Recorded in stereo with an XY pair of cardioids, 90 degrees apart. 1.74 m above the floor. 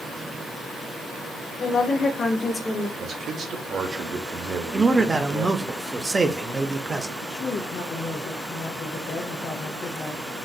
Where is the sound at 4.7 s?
30° right, 0.6 m.